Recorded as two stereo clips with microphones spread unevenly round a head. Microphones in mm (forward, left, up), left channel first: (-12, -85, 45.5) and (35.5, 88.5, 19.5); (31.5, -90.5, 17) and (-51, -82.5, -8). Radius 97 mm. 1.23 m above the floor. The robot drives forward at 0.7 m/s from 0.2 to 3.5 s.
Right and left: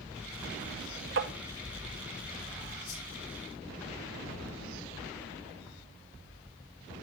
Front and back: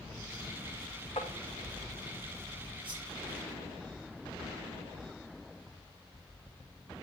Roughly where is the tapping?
Ahead left.